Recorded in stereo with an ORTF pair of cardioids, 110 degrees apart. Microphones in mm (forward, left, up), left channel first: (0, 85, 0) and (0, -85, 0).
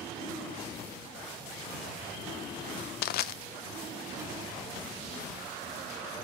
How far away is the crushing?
About 0.7 m.